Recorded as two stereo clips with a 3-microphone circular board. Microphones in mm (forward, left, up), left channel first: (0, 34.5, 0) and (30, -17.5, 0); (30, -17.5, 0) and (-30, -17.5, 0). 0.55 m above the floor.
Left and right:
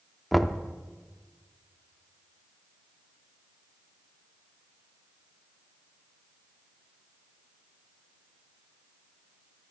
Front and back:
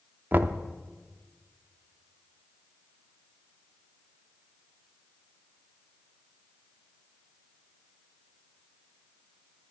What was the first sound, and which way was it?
Knocking, 155° right.